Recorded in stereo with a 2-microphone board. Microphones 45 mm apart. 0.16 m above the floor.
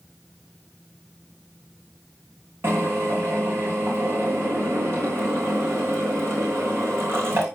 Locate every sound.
2.6 s a drill: 55° right (ahead or behind), 5.5 m